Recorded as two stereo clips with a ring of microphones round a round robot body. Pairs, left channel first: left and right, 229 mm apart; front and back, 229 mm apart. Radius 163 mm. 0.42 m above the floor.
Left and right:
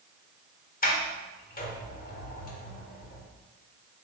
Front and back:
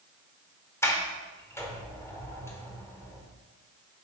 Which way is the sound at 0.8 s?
75° left.